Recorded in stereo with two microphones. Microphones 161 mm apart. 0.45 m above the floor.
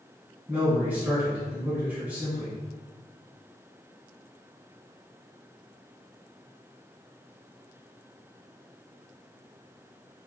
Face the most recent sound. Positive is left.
turn(degrees=-10)  # may be behind; listen again after turning